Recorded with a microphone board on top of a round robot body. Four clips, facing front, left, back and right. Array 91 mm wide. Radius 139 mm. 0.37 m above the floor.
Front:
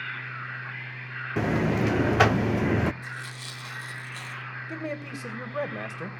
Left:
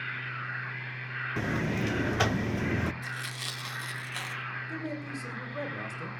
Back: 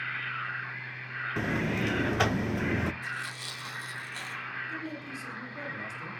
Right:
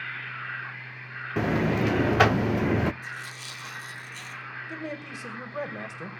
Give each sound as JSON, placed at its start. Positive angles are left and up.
{"t": 1.4, "sound": "a buzzer", "azimuth_deg": -50, "distance_m": 0.5}
{"t": 3.0, "sound": "tearing paper", "azimuth_deg": 90, "distance_m": 3.0}
{"t": 4.7, "sound": "a man speaking", "azimuth_deg": -20, "distance_m": 3.0}